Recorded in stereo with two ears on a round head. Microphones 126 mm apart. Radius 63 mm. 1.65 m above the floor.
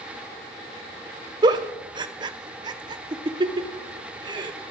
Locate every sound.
1.4 s a giggle: 30° right (ahead or behind), 0.8 m